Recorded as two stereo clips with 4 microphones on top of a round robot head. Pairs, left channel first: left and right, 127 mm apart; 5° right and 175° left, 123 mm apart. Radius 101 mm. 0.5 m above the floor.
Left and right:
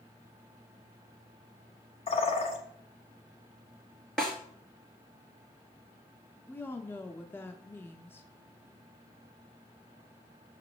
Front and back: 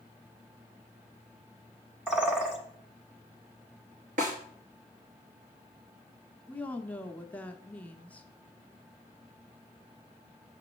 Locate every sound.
2.1 s a bird: 95° left, 1.4 m
4.2 s a snare drum: 175° left, 2 m
6.5 s a woman speaking: 50° left, 0.7 m